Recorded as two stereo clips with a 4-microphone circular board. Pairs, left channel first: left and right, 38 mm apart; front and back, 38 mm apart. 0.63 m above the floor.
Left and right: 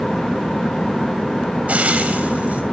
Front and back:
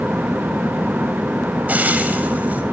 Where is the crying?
No crying in this recording.